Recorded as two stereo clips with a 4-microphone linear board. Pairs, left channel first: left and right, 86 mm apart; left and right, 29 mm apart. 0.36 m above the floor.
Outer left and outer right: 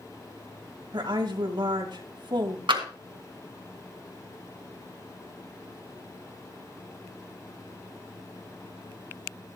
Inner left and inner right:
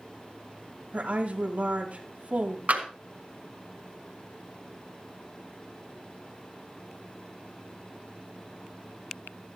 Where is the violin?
No violin in this recording.